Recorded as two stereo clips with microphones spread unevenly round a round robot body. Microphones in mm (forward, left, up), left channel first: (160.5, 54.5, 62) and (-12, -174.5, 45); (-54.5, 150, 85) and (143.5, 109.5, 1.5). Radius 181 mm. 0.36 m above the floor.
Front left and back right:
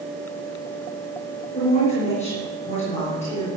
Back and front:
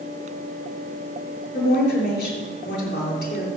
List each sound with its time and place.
1.5 s a woman speaking: 125° left, 6.5 m